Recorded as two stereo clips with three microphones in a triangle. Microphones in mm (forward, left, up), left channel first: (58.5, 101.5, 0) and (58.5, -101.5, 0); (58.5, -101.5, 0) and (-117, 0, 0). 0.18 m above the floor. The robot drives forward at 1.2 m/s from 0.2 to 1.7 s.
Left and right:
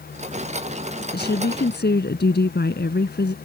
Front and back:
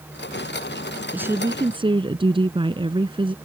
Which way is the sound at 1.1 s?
70° left.